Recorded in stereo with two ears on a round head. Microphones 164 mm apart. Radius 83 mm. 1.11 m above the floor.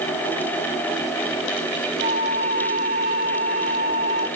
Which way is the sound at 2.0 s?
30° right (ahead or behind).